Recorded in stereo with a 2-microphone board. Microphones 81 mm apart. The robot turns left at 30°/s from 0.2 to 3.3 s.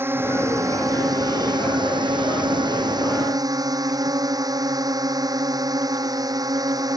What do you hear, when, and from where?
0.0 s a drone: 30° right; by 7.0 s 125° right